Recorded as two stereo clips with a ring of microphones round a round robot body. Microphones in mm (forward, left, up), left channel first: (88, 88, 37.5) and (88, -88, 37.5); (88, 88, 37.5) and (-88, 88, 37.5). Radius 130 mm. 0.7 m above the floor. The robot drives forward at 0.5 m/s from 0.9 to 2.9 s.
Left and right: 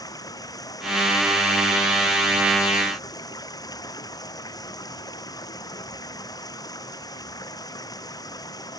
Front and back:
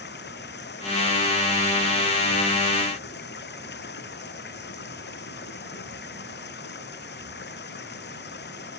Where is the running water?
20° left.